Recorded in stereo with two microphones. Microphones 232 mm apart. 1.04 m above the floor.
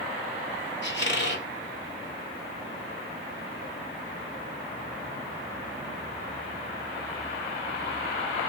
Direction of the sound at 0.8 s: 50° left (ahead or behind).